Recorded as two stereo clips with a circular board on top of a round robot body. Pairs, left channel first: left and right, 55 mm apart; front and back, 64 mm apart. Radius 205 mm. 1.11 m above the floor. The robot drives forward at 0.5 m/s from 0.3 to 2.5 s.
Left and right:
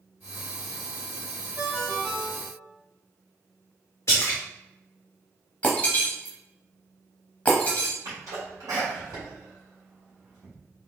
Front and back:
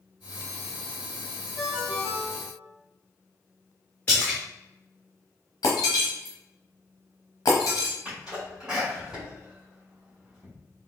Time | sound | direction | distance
1.6 | a ringtone | 45° right | 1.3 m
4.1 | a splash | 65° left | 0.5 m
5.6 | breaking glass | 25° left | 0.7 m
8.1 | a sneeze | 110° right | 2.5 m